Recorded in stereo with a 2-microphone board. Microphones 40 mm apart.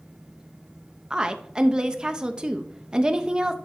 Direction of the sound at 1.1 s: 20° right (ahead or behind).